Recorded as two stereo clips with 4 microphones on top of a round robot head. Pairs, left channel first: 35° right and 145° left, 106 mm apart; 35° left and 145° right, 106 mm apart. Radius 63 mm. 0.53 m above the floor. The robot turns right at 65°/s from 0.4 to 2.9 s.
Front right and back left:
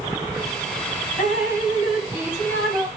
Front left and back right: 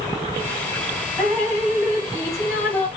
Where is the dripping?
45° right, 3.5 m; by 2.9 s 65° left, 3.5 m.